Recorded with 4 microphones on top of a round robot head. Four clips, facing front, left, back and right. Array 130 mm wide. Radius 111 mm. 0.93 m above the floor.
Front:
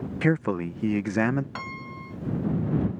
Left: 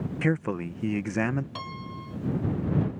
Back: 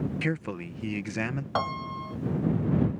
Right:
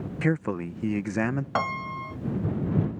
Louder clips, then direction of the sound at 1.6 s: Right 9 dB, back 7 dB; 130° right.